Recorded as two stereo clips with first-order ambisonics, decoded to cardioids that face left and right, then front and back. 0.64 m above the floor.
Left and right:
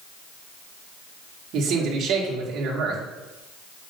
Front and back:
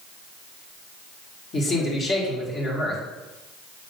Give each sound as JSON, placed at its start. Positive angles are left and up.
{"t": 1.5, "sound": "a man speaking", "azimuth_deg": -55, "distance_m": 1.7}